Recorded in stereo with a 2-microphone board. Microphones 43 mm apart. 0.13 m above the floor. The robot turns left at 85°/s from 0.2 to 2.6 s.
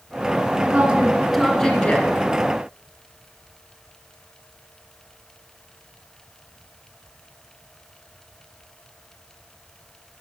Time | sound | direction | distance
0.6 | a woman speaking | 115° right | 1.3 m